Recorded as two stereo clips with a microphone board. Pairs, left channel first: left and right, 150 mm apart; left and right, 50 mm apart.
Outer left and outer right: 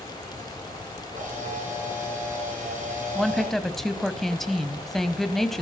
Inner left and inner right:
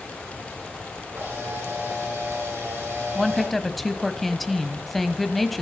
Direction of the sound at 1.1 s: 60° right (ahead or behind).